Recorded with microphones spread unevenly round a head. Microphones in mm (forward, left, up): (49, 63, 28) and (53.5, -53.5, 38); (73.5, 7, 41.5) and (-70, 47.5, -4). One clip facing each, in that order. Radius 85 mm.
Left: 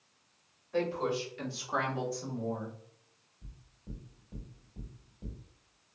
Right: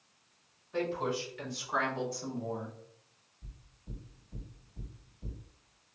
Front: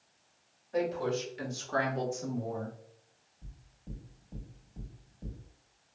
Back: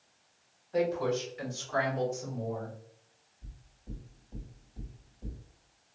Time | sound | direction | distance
0.7 | a woman speaking | 45° left | 2.0 m
3.4 | knocking | 40° left | 1.9 m